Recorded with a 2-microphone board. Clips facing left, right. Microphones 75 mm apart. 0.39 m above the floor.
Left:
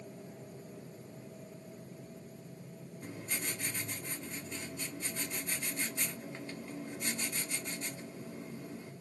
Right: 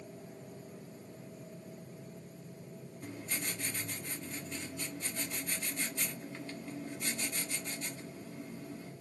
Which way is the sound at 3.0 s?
20° left (ahead or behind).